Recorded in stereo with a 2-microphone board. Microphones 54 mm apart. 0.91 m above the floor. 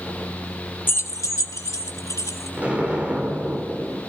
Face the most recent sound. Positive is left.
turn(degrees=-25)  # may be behind; listen again after turning